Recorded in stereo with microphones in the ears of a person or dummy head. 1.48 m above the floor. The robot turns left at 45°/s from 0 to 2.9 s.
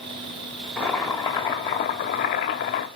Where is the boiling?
Straight behind, 1.6 m; by 2.9 s 85° left, 1.6 m.